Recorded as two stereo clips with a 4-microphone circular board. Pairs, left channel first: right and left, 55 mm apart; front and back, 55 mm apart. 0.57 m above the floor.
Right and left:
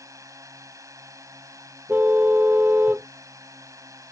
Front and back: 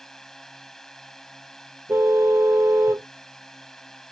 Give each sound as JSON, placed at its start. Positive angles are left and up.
{"t": 0.0, "sound": "a drone", "azimuth_deg": 85}
{"t": 1.9, "sound": "a car horn", "azimuth_deg": 150}